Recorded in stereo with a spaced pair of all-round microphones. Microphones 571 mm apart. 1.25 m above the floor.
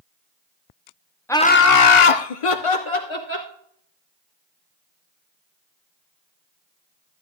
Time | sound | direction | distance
1.3 | laughter | 5° left (ahead or behind) | 0.8 m